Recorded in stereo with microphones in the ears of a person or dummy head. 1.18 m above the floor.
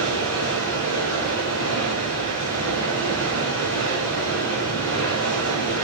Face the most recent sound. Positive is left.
turn(degrees=10)  # may be behind; listen again after turning